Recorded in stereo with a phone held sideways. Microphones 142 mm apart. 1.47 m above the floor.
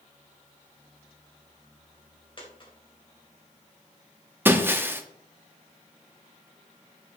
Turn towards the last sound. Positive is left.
turn(degrees=-15)  # may be behind; listen again after turning